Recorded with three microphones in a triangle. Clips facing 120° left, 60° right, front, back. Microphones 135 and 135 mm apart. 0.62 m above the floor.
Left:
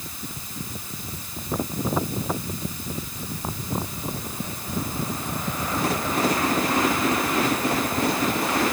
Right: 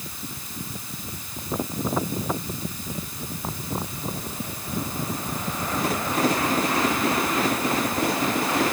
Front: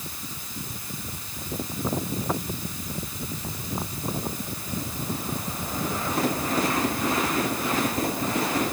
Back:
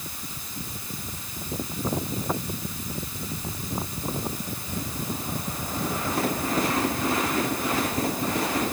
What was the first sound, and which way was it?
Only background noise.